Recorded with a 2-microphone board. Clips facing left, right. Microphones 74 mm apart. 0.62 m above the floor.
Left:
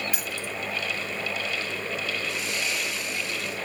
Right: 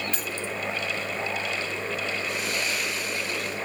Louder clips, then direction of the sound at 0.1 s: Right 1 dB; 10° left (ahead or behind).